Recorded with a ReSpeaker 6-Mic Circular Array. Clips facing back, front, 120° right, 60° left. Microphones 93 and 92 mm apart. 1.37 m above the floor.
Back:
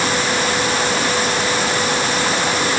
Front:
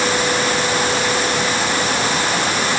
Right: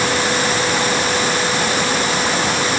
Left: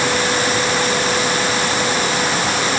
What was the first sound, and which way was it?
Only background noise.